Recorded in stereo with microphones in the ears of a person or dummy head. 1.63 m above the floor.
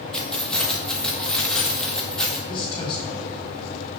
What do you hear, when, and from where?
0.1 s keys jangling: centre (ahead or behind), 1.2 m
2.5 s a man speaking: 25° left (ahead or behind), 3 m